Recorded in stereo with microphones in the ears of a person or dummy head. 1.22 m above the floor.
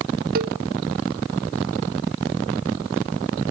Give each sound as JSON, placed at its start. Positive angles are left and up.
{"t": 0.3, "sound": "a cowbell", "side_deg": -45, "distance_m": 0.6}